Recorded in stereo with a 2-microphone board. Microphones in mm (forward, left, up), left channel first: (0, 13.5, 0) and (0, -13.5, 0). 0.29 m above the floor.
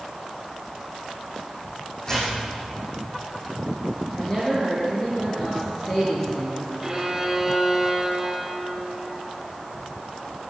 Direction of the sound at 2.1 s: 20° left (ahead or behind).